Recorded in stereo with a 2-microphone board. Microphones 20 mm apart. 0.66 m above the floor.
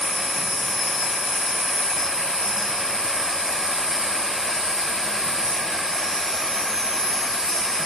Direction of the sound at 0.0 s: 35° left (ahead or behind).